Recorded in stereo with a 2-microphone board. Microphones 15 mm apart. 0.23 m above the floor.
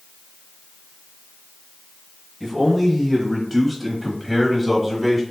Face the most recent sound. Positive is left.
turn(degrees=-10)  # may be behind; listen again after turning